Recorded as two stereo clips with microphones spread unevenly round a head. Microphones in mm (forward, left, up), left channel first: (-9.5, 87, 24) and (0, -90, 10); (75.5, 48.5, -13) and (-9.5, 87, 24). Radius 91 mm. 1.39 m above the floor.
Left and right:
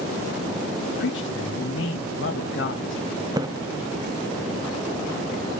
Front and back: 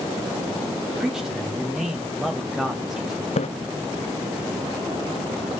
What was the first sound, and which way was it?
A man speaking, 70° left.